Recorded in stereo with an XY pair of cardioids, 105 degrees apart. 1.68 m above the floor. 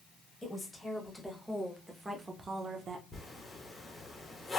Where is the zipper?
20° left, 1.1 m.